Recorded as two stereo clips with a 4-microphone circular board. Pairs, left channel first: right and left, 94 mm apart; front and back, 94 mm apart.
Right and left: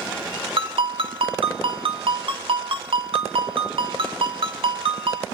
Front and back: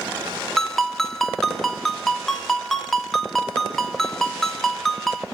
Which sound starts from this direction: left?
A ringtone, at 0.6 s.